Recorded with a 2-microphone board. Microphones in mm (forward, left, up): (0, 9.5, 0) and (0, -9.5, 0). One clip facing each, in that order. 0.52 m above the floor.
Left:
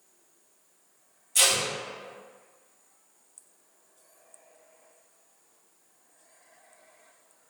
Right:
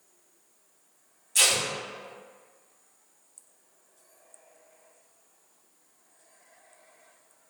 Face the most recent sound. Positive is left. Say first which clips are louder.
# even
turn(degrees=-10)  # may be behind; listen again after turning